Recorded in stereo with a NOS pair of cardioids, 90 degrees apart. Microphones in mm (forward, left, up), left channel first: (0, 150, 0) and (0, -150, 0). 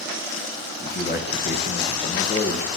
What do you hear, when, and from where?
0.8 s a man speaking: 30° left, 1.4 m